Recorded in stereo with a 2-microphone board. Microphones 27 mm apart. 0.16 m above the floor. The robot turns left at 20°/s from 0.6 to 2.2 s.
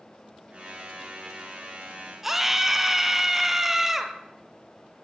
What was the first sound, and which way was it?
A scream, 15° right (ahead or behind).